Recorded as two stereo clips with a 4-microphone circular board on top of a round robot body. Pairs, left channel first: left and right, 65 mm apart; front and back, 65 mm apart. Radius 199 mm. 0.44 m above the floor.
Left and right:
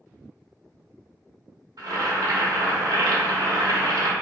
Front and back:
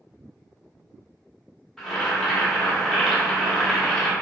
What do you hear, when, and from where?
1.8 s boiling: 85° right, 1.0 m